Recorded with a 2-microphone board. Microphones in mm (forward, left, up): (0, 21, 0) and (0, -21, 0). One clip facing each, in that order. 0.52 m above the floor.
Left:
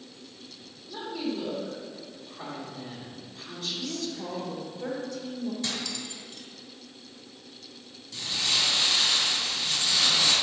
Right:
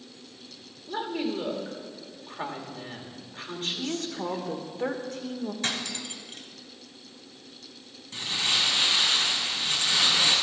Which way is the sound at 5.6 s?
55° right (ahead or behind).